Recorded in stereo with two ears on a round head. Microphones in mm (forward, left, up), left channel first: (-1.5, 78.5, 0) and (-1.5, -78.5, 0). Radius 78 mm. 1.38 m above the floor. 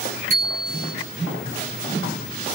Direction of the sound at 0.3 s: 40° right (ahead or behind).